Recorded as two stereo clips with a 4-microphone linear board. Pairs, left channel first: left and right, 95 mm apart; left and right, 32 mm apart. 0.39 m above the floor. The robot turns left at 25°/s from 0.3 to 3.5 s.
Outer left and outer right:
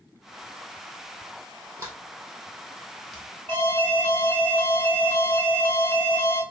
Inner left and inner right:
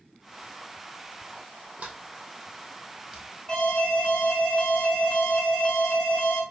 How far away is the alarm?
About 2 m.